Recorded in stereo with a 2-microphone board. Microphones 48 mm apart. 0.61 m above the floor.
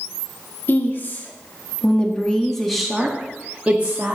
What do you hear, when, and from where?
0.7 s a woman speaking: 45° left (ahead or behind), 1.6 m; by 4.2 s 30° right (ahead or behind), 1.5 m